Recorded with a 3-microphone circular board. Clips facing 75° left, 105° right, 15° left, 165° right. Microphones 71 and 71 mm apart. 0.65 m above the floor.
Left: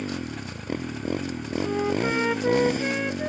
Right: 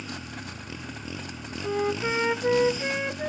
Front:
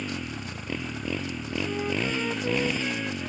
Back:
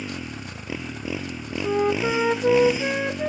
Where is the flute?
165° left.